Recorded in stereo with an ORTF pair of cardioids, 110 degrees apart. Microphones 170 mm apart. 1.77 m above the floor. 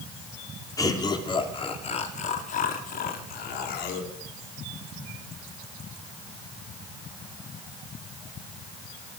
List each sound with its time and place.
0.8 s laughter: 20° left, 5 m; by 4.1 s 75° left, 5.5 m